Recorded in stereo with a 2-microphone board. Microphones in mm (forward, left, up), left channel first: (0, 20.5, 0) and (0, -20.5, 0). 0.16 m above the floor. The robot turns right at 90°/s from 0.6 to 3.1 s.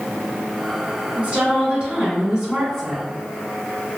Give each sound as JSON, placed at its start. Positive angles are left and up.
{"t": 1.2, "sound": "a woman speaking", "side_deg": -20, "distance_m": 1.4}